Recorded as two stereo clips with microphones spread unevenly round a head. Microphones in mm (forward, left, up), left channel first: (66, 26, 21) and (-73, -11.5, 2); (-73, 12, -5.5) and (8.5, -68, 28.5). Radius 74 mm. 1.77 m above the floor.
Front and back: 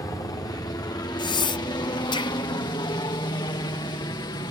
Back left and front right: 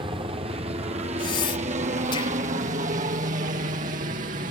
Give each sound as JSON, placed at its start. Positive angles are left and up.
{"t": 0.0, "sound": "a helicopter", "azimuth_deg": -35}
{"t": 1.2, "sound": "breathing", "azimuth_deg": 75}